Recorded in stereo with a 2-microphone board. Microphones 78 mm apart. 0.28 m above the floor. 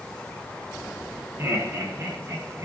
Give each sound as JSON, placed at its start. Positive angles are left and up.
{"t": 1.4, "sound": "laughter", "side_deg": -30, "distance_m": 2.5}